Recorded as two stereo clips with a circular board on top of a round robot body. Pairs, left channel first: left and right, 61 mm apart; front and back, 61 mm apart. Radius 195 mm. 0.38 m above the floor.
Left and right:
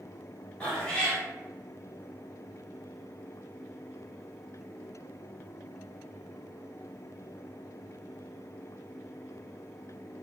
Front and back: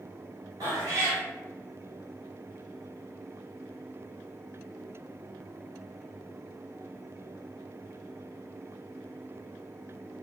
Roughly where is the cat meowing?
Behind.